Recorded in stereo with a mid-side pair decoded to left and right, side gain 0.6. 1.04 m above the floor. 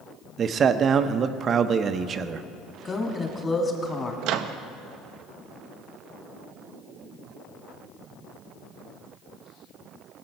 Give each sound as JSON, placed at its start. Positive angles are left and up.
{"t": 0.4, "sound": "a man speaking", "azimuth_deg": -40, "distance_m": 0.6}
{"t": 2.9, "sound": "a woman speaking", "azimuth_deg": 25, "distance_m": 2.5}
{"t": 4.2, "sound": "a microwave", "azimuth_deg": -70, "distance_m": 0.6}